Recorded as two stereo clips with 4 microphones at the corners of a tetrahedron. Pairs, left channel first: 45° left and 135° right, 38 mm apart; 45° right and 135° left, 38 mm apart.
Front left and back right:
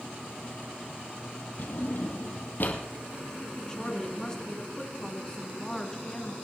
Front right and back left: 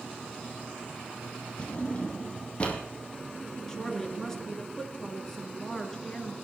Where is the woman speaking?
5° left, 1.7 m.